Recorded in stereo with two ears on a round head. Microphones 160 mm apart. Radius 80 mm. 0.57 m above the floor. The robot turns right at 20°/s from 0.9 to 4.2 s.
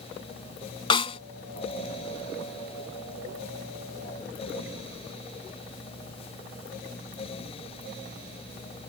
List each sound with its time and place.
0.9 s a snare drum: 30° left (ahead or behind); by 1.2 s 35° left (ahead or behind)